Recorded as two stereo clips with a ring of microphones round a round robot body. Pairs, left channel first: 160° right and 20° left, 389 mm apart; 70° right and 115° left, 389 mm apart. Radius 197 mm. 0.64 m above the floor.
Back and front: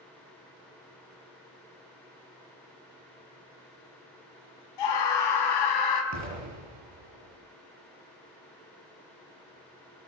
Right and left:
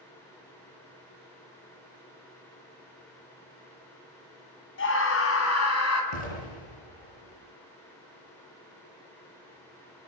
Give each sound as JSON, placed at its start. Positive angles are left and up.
{"t": 4.8, "sound": "a scream", "azimuth_deg": -130, "distance_m": 5.0}
{"t": 6.1, "sound": "an explosion", "azimuth_deg": -30, "distance_m": 7.5}